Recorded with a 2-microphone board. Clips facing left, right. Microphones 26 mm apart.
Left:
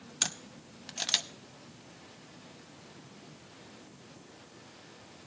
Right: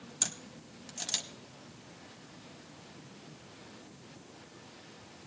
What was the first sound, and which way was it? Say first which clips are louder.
A camera shutter: left 5 dB; 40° left (ahead or behind).